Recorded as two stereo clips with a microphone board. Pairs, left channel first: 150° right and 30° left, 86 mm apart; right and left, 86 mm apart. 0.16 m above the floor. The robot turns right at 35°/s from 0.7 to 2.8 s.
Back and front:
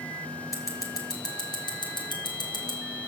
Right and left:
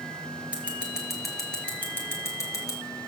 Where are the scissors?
165° left, 2.5 m; by 2.8 s 125° right, 2.5 m.